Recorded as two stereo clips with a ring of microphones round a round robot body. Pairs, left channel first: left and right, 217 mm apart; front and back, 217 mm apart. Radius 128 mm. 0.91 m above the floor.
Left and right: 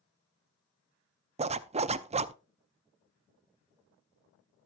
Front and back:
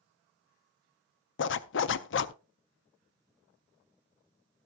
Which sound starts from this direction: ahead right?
A zipper, at 1.4 s.